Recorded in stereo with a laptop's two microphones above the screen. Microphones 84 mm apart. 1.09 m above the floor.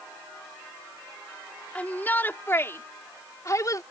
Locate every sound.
1.8 s a shout: 20° left (ahead or behind); by 3.8 s 45° left (ahead or behind)